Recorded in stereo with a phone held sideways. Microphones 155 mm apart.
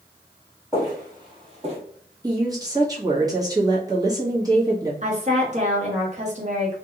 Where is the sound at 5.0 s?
45° right (ahead or behind), 1.3 m.